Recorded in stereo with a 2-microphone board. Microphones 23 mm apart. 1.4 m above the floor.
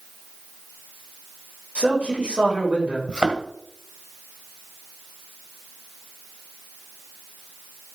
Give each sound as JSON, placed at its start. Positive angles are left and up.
{"t": 1.8, "sound": "a man speaking", "side_deg": -65, "distance_m": 6.0}
{"t": 3.1, "sound": "a thud", "side_deg": -45, "distance_m": 1.6}